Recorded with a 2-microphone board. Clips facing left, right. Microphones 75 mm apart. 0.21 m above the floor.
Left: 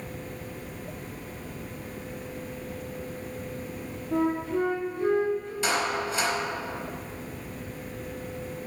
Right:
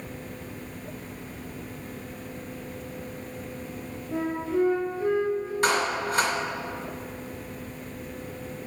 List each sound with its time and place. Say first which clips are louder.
4.1 s a flute: left 1 dB; 5° right (ahead or behind), 2 m
5.6 s a clap: right 2 dB; 55° right (ahead or behind), 2 m